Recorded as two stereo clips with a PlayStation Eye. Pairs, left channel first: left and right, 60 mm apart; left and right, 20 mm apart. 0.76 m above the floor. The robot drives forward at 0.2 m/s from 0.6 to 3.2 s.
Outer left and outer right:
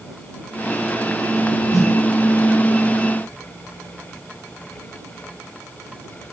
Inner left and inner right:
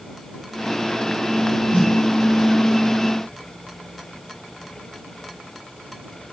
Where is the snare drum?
75° left (ahead or behind), 2.5 m.